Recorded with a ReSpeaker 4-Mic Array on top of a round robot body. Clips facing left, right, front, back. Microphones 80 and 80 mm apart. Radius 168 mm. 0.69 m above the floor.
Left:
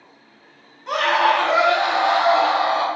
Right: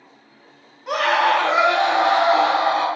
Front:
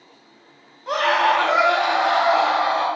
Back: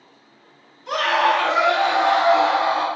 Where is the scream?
15° right, 1.2 m; by 2.9 s 95° right, 1.5 m.